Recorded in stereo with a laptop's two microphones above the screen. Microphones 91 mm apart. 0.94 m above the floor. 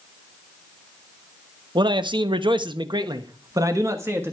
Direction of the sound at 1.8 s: 55° right (ahead or behind).